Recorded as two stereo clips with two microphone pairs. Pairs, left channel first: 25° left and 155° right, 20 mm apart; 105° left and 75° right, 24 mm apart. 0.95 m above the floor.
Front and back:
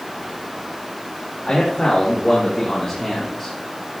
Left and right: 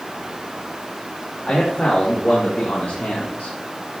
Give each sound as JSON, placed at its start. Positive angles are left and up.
{"t": 1.5, "sound": "a man speaking", "azimuth_deg": 75, "distance_m": 3.5}